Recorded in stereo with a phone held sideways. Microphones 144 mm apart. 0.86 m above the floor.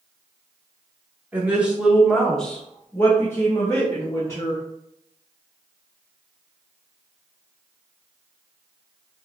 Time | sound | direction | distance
1.3 | a woman speaking | 10° right (ahead or behind) | 1.3 m